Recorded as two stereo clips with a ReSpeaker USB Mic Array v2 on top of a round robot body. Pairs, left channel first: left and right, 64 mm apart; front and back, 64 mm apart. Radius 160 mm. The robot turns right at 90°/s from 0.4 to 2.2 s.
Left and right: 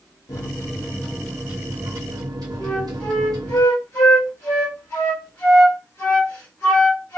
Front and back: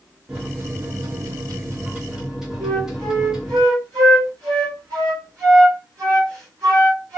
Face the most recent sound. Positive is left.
turn(degrees=140)